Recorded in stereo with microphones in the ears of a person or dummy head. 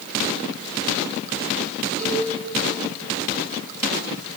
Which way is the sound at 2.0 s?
60° left (ahead or behind).